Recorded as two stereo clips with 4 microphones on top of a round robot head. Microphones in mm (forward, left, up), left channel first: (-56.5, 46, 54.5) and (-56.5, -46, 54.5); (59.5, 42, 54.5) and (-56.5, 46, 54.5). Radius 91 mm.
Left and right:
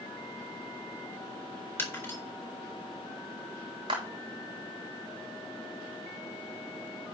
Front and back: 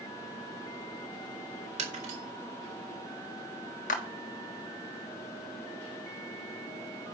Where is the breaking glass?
160° left, 4 m.